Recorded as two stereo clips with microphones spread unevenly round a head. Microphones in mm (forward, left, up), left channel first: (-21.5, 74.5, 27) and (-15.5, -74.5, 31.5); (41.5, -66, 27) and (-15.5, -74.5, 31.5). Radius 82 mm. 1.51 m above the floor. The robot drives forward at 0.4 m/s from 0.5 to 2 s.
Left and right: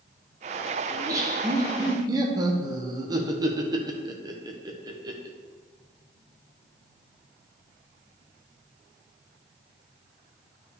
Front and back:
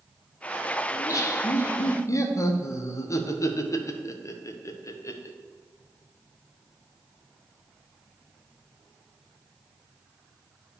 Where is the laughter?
15° right, 1.7 m; by 5.4 s 20° right, 1.3 m.